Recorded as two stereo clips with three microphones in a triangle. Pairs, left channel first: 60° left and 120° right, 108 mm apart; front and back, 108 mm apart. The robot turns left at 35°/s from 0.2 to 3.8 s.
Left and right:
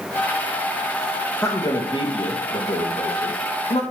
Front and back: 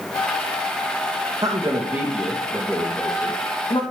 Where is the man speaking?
125° left, 2 m; by 3.8 s 40° left, 2 m.